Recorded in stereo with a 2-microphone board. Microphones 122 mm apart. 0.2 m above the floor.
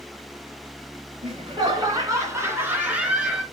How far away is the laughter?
About 1.8 m.